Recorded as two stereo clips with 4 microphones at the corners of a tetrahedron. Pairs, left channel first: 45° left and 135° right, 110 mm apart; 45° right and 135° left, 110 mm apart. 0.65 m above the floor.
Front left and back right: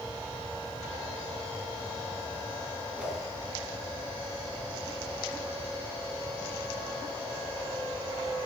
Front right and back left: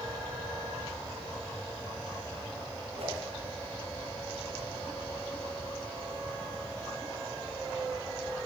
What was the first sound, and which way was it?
A whoosh, 145° left.